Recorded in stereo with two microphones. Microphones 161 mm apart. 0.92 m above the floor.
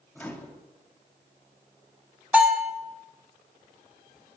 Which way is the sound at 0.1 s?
10° left (ahead or behind).